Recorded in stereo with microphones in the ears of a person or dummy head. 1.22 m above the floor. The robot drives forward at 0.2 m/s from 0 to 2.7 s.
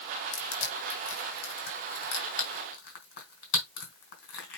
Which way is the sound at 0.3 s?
65° left (ahead or behind).